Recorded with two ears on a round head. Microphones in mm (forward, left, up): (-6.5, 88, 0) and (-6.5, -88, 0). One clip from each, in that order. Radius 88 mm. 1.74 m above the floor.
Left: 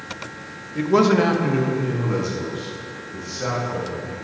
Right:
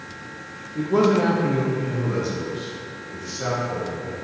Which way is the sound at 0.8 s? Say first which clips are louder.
Left 2 dB; 50° left (ahead or behind).